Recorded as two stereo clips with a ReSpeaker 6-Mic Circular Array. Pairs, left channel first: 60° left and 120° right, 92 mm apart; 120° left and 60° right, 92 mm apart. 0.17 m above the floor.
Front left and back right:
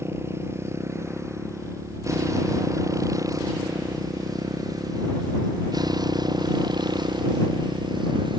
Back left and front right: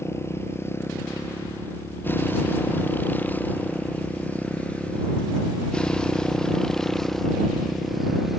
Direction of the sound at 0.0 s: Straight behind.